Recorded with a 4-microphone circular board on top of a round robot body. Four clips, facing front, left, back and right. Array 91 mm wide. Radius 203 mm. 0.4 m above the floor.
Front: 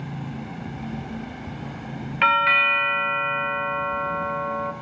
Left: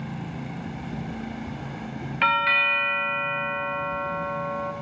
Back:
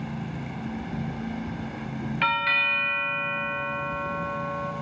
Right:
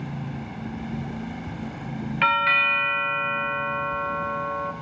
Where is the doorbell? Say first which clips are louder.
Right 1 dB, front 7 dB; 10° right, 1.7 m.